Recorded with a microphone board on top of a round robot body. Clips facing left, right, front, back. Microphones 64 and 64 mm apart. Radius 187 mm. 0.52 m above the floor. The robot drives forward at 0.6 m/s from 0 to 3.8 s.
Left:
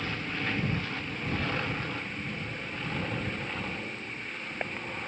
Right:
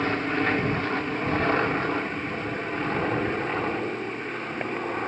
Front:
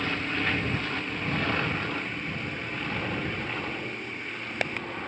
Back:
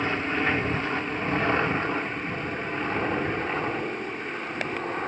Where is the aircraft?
120° right; by 5.1 s 125° right.